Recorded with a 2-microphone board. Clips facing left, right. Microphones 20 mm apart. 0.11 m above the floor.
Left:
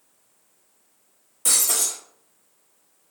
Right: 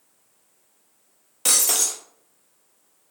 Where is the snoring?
I don't hear snoring.